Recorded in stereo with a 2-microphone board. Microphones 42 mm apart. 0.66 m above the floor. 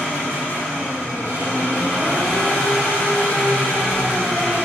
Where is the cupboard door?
I don't hear a cupboard door.